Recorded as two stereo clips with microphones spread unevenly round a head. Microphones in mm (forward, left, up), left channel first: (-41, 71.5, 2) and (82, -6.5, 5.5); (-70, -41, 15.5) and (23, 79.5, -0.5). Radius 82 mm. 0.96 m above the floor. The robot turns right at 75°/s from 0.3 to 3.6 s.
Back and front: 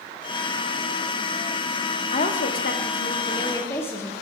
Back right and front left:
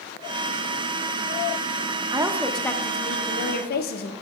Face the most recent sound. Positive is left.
turn(degrees=-140)